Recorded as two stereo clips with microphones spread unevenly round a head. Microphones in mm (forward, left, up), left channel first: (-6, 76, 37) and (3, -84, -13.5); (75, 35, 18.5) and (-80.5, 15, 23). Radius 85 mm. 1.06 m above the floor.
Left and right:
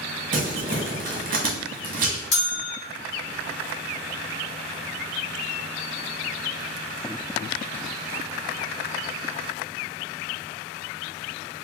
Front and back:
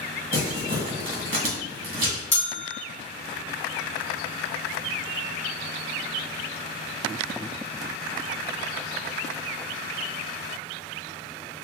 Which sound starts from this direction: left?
A bell, at 2.3 s.